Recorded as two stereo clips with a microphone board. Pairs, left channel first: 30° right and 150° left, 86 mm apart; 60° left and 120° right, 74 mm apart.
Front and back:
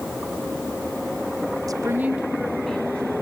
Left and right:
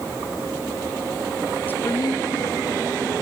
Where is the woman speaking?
120° left, 0.7 m; by 3.1 s 45° left, 2.0 m.